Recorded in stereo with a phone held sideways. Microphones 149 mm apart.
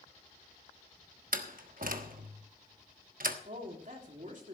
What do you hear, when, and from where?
1.3 s a door slam: 70° right (ahead or behind), 1.1 m
3.5 s a woman speaking: 60° right (ahead or behind), 2.5 m